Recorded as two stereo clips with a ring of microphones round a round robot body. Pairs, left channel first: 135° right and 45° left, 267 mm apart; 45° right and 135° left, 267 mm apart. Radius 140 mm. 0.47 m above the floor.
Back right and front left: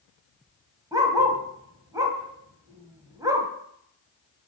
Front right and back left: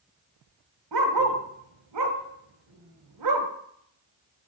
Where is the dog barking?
125° left, 1.1 m.